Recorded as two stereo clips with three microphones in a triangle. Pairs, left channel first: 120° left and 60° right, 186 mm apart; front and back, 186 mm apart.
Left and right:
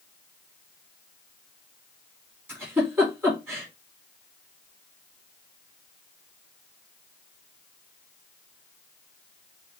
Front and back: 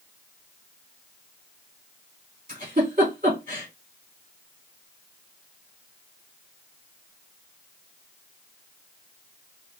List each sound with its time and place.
2.5 s a giggle: 140° right, 2.5 m